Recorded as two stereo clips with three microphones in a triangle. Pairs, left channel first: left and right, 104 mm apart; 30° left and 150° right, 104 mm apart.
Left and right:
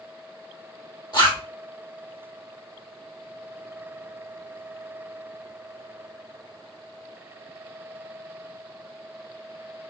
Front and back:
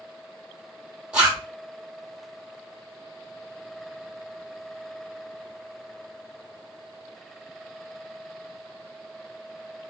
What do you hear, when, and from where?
1.1 s a zipper: 130° left, 2 m